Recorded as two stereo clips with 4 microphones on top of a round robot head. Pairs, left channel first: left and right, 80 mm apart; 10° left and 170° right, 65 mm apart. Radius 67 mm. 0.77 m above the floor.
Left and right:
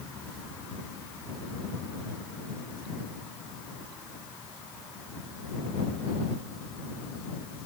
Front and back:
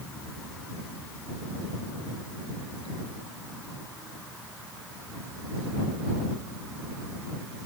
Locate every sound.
Only background noise.